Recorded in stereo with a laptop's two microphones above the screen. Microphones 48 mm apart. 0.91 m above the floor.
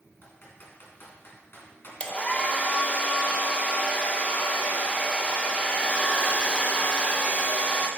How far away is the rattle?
I don't hear a rattle.